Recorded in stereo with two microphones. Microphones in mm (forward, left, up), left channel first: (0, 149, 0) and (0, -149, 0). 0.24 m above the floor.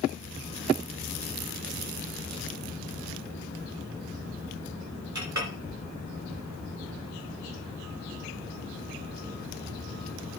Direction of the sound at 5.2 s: 70° right (ahead or behind).